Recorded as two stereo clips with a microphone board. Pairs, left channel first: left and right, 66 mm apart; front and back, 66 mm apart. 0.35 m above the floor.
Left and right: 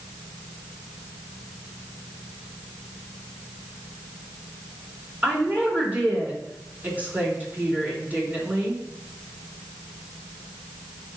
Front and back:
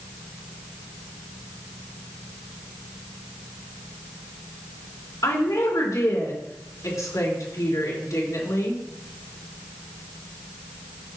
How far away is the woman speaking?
About 3.5 m.